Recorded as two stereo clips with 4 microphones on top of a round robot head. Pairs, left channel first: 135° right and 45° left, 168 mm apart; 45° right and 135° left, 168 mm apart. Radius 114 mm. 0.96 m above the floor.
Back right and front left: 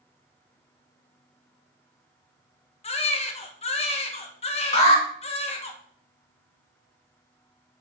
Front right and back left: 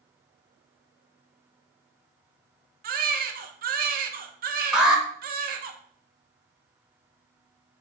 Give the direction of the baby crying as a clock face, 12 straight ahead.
6 o'clock.